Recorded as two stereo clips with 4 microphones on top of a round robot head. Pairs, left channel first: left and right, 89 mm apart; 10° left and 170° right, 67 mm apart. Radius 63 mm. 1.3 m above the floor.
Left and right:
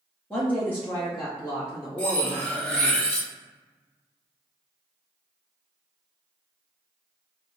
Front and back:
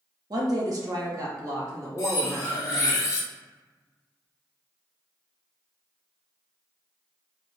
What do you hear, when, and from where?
0.3 s a woman speaking: 170° left, 1.1 m; by 3.0 s 145° left, 2.5 m
2.0 s cutlery clinking: 20° left, 0.7 m